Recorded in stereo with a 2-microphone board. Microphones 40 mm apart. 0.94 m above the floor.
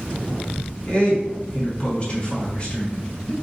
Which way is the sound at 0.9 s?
30° left (ahead or behind).